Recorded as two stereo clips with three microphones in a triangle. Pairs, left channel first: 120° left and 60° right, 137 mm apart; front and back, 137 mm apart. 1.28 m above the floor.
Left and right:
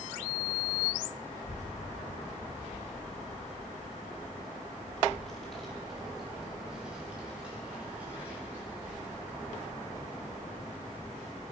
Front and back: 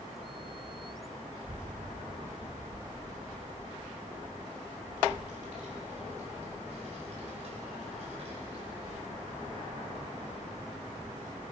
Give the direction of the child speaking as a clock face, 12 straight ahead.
8 o'clock.